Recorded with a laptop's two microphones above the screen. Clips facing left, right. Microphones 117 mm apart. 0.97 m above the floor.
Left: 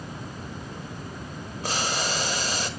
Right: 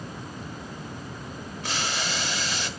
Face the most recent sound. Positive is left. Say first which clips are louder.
# left 3 dB
turn(degrees=40)  # may be behind; listen again after turning